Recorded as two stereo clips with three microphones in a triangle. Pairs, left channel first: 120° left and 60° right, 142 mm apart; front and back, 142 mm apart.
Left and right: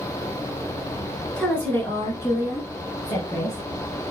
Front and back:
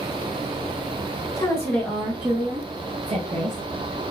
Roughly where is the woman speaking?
Ahead left.